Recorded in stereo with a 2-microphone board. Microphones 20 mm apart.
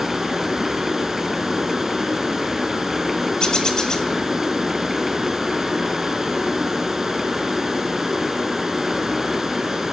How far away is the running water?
About 5 m.